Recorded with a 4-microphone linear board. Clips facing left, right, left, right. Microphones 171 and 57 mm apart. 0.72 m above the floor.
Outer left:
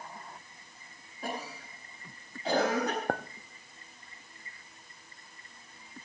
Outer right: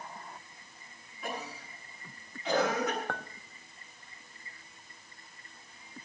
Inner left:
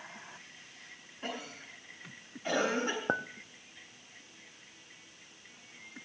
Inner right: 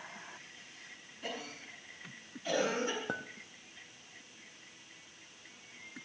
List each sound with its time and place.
1.2 s a cough: 40° left (ahead or behind), 8 m
3.1 s a clink: 40° left (ahead or behind), 0.5 m